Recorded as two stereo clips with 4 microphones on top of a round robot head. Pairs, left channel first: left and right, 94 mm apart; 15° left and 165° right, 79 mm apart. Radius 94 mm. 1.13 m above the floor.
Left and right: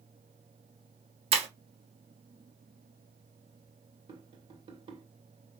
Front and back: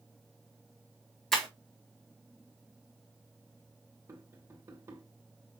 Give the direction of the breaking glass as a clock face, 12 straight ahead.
2 o'clock.